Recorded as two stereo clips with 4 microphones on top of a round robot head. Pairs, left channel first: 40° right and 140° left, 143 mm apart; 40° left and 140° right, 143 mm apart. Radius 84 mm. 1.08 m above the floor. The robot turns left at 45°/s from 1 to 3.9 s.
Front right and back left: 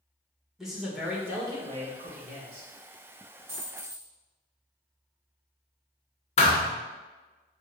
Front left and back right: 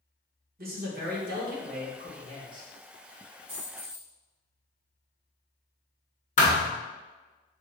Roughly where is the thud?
Ahead.